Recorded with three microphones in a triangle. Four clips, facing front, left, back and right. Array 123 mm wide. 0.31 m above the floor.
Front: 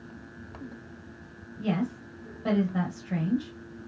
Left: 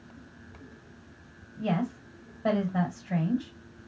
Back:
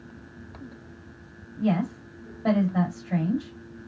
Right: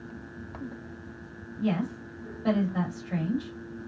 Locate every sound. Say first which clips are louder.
1.6 s a woman speaking: right 1 dB, back 4 dB; 130° left, 1.8 m